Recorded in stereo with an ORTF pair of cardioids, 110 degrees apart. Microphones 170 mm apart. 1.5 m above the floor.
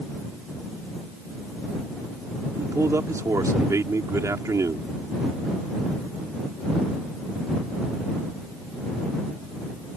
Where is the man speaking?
20° right.